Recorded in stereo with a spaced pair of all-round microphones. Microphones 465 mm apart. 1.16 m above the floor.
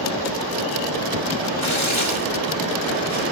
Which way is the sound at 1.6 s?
85° left.